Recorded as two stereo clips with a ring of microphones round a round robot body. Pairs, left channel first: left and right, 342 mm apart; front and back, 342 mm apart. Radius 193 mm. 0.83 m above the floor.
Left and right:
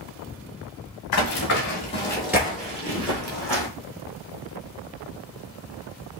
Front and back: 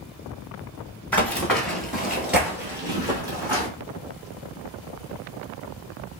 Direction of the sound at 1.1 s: 85° left.